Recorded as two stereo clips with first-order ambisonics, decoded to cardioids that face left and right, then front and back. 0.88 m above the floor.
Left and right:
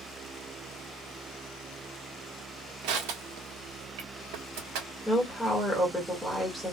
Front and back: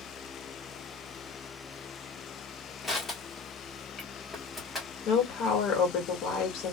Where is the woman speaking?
Straight ahead, 1.3 m.